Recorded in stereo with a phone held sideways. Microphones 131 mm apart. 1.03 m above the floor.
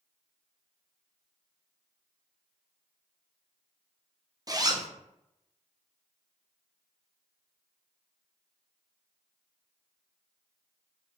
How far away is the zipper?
About 0.8 m.